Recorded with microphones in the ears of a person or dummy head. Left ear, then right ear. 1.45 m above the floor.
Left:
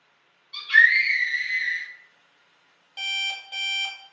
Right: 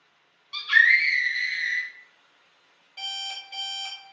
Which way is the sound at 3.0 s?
30° left (ahead or behind).